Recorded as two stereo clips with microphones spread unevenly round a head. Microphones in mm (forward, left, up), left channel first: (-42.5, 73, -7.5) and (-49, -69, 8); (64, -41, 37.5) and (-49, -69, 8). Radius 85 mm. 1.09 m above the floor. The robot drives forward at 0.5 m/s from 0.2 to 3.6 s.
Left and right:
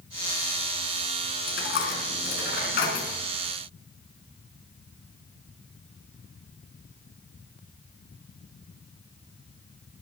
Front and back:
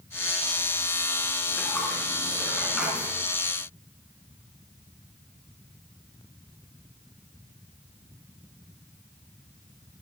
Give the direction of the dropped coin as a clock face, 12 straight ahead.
9 o'clock.